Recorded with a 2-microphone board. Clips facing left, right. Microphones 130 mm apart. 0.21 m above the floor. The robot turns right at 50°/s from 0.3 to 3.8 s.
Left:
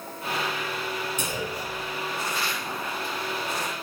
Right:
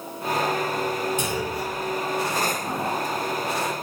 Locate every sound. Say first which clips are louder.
1.2 s a clunk: right 4 dB; 100° right, 1.3 m; by 1.9 s 60° right, 1.3 m